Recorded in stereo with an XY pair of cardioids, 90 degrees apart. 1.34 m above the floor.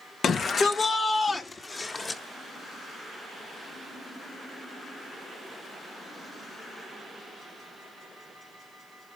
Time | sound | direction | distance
0.2 | a shout | 60° left | 1.7 m